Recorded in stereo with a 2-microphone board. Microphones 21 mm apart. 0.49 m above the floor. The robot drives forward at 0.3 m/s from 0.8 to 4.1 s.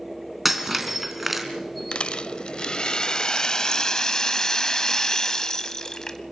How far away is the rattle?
About 0.7 m.